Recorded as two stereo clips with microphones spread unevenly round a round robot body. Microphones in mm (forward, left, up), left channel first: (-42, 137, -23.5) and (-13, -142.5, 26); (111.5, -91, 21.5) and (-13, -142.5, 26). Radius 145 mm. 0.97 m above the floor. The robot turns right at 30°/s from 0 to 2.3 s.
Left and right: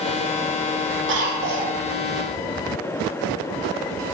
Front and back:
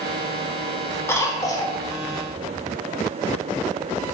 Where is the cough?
40° right, 1.0 m; by 1.8 s 20° right, 1.0 m.